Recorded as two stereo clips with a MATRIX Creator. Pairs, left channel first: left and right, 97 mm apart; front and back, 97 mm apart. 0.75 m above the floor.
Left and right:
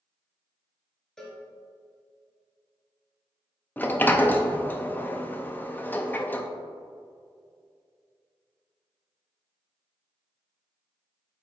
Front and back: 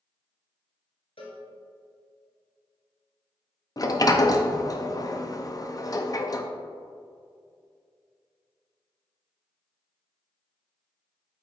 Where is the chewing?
I don't hear chewing.